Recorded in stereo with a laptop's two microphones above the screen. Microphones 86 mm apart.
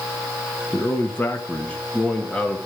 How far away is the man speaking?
About 1.5 m.